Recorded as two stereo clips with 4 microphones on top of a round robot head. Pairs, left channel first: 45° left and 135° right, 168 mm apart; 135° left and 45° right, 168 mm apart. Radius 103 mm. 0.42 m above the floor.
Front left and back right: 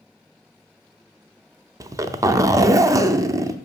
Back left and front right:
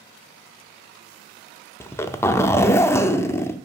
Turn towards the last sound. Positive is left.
turn(degrees=-175)